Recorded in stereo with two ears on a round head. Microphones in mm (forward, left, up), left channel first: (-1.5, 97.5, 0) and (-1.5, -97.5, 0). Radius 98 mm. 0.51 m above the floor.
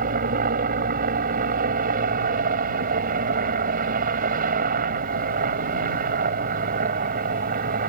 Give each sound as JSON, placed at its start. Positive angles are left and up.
{"t": 0.0, "sound": "a helicopter", "side_deg": -45}